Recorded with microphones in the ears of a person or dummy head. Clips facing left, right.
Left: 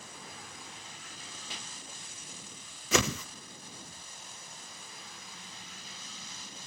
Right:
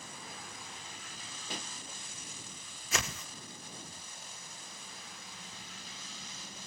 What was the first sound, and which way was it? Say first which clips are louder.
A pop: right 7 dB; 45° right (ahead or behind).